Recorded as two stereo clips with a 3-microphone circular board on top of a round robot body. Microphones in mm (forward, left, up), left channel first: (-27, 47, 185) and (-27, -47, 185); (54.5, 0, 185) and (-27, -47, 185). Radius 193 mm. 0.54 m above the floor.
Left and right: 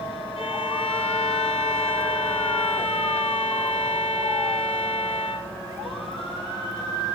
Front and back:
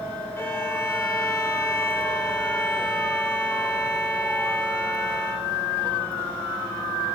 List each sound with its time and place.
0.4 s a violin: 95° left, 2 m